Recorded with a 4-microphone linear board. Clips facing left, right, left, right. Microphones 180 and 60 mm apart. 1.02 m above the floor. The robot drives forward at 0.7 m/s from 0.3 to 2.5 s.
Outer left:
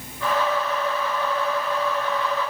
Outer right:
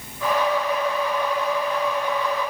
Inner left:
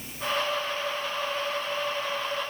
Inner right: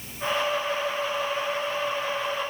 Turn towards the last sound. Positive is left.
No sound to turn to.